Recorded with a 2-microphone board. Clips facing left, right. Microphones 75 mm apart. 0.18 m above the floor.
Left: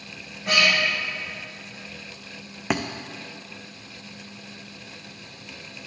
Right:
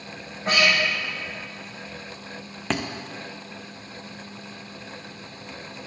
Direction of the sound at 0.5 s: 40° right (ahead or behind).